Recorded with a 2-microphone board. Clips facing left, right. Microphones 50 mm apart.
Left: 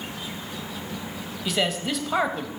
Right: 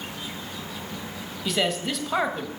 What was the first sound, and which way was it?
A man speaking, centre (ahead or behind).